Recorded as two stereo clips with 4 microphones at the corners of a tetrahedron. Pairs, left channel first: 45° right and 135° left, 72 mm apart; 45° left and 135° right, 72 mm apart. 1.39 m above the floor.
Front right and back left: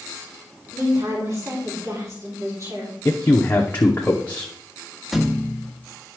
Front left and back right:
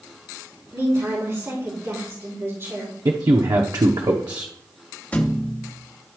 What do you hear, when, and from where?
0.7 s a woman speaking: 175° left, 4 m
3.0 s a man speaking: 110° right, 0.8 m
5.1 s a thud: 55° left, 0.9 m